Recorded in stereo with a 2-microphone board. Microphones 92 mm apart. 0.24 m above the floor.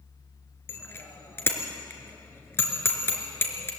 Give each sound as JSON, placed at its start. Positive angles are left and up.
{"t": 0.7, "sound": "a bicycle bell", "side_deg": 25, "distance_m": 3.0}